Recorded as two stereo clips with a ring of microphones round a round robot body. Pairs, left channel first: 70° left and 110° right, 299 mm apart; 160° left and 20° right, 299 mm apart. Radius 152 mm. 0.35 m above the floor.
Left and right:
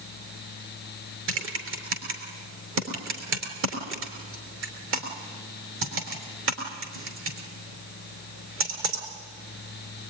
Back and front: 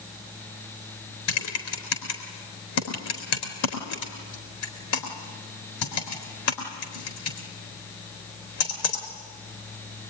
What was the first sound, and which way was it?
Typing on a keyboard, 160° right.